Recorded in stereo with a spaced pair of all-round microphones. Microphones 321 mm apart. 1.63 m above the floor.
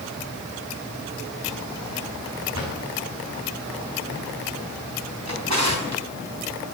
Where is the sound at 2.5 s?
60° right (ahead or behind), 6.5 m.